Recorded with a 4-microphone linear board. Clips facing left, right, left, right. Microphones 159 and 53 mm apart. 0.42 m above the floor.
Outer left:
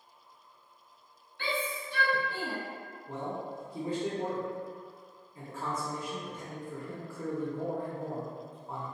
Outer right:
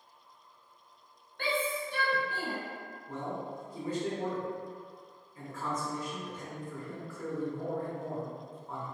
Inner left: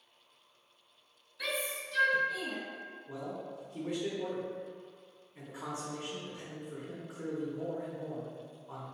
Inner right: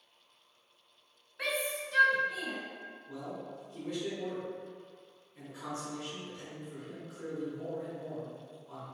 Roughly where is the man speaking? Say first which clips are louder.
Outer left 1 dB, inner left 1 dB; left.